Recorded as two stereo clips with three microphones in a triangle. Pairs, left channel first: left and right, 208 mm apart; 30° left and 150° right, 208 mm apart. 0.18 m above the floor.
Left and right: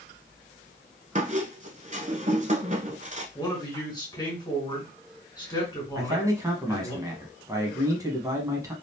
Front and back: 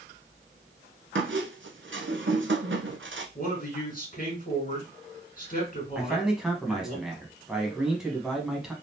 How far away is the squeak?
About 0.7 m.